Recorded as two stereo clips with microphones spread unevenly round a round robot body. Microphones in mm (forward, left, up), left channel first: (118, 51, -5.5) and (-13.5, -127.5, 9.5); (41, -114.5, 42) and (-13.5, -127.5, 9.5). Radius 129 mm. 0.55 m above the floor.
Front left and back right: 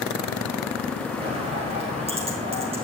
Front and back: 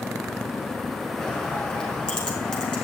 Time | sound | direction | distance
1.2 | a bird | 65° right | 5 m